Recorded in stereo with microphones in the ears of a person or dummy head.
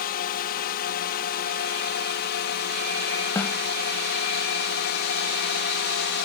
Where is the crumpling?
No crumpling in this recording.